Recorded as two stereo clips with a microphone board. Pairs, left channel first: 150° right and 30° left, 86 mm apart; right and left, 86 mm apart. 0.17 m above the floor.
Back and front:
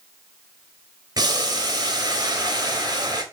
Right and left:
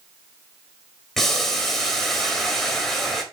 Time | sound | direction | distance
1.2 | boiling | 5° right | 0.9 m